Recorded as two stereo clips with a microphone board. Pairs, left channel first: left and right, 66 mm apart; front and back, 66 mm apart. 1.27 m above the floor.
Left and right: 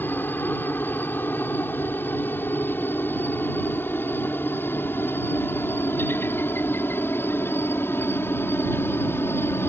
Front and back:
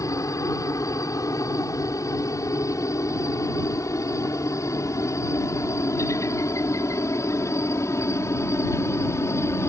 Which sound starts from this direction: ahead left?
A helicopter, at 0.0 s.